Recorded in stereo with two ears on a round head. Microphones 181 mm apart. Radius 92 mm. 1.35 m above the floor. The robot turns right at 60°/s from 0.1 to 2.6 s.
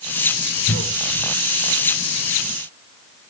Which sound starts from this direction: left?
A cough, at 0.7 s.